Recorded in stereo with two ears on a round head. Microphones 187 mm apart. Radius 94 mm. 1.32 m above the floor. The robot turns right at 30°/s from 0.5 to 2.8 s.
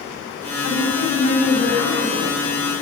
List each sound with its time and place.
0.6 s a woman speaking: 70° left, 9.5 m; by 2.4 s 125° left, 9.5 m